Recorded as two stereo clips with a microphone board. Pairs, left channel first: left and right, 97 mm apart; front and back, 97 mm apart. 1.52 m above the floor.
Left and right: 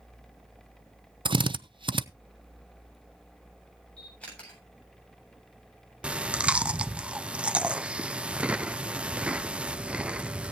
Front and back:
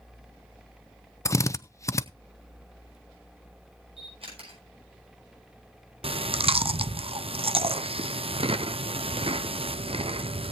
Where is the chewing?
170° right, 0.5 m.